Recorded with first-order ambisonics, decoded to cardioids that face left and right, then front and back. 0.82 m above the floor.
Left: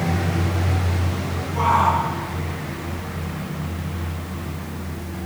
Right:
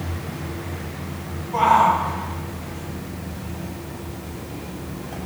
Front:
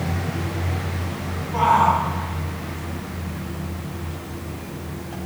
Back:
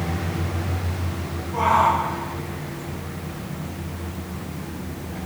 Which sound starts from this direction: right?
A shout, at 1.5 s.